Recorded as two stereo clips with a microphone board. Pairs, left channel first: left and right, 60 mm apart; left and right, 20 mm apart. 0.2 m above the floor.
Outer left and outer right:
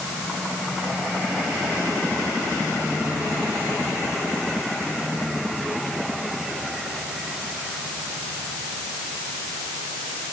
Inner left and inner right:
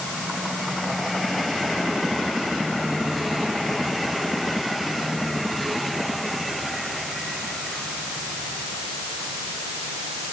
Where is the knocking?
I don't hear knocking.